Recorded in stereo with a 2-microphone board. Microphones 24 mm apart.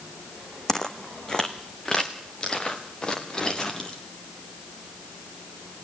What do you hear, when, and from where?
0.7 s footsteps: 20° left (ahead or behind), 1.3 m; by 4.0 s 25° left (ahead or behind), 4 m